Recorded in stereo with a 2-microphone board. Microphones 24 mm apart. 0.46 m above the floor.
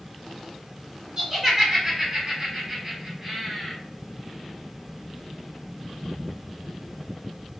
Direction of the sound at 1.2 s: 20° right (ahead or behind).